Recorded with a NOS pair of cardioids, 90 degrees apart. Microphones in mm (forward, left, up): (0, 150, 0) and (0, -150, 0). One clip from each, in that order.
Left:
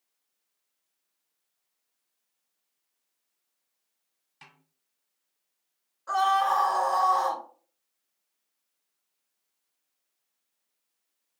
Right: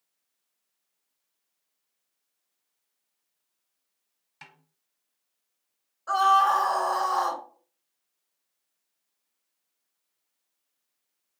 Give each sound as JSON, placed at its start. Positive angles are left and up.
{"t": 4.4, "sound": "a snare drum", "azimuth_deg": -25, "distance_m": 1.2}
{"t": 6.1, "sound": "a scream", "azimuth_deg": -15, "distance_m": 1.1}